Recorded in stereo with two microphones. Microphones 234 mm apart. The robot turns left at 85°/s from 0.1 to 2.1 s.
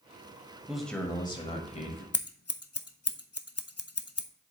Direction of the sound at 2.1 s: 80° left.